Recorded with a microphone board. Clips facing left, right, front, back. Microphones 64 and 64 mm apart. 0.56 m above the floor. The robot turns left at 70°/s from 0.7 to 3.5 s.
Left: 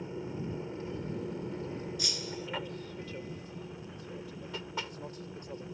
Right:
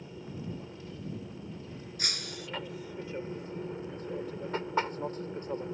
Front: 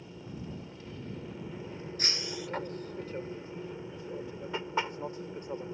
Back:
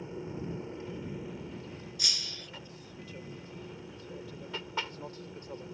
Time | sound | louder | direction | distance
0.0 | an aircraft | left 4 dB, back 5 dB | 135° left | ?
2.0 | breaking glass | left 1 dB, front 7 dB | 50° right | ?